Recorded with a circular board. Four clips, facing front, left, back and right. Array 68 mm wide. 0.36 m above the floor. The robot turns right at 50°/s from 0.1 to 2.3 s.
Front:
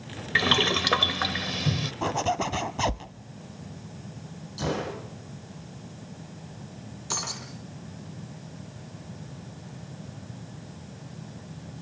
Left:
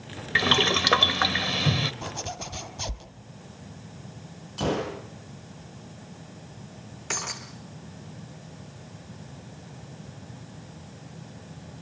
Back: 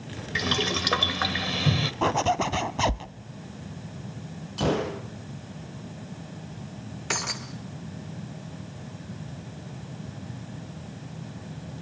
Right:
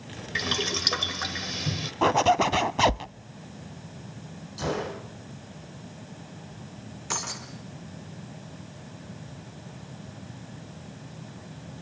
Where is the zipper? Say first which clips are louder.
Right 15 dB, back 3 dB; 115° right, 0.6 m; by 3.1 s 100° right, 0.6 m.